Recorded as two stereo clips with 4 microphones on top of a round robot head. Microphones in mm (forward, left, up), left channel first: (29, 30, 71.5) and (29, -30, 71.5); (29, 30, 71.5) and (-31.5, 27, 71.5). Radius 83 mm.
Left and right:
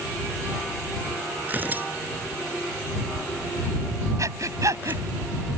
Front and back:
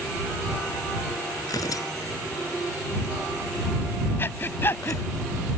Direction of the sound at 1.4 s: 30° right.